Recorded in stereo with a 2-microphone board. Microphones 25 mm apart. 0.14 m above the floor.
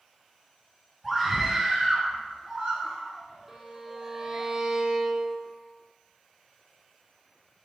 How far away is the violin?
About 0.8 m.